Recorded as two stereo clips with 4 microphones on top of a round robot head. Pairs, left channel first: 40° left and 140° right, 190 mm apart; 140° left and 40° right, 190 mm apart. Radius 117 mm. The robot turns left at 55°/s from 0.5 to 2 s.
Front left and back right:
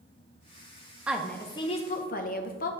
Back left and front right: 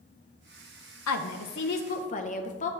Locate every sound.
1.1 s a woman speaking: 140° left, 0.6 m; by 2.7 s 85° left, 0.6 m